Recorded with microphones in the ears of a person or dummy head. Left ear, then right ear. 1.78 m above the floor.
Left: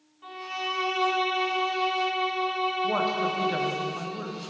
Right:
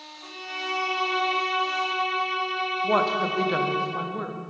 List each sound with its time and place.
0.2 s a violin: 20° left (ahead or behind), 3 m
2.8 s a woman speaking: 15° right (ahead or behind), 0.7 m